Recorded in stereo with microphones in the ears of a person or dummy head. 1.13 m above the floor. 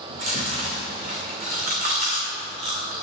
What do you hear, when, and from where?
0.1 s chewing: 55° right (ahead or behind), 2.5 m